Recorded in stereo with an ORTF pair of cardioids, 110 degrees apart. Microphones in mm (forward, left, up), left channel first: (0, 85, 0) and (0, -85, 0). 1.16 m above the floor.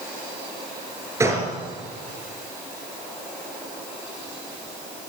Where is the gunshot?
15° right, 3.5 m.